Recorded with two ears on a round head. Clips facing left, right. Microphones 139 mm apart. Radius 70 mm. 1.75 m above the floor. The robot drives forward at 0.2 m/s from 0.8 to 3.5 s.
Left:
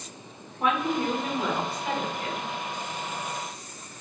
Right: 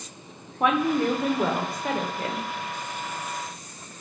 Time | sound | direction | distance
0.6 | a woman speaking | 55° right (ahead or behind) | 1.0 m